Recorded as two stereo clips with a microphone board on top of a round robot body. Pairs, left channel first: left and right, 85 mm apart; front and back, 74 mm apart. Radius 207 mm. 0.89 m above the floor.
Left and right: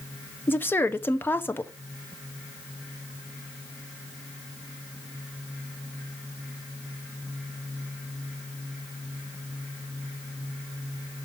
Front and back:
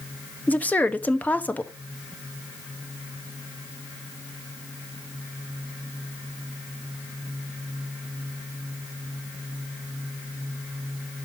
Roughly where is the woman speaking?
Ahead left.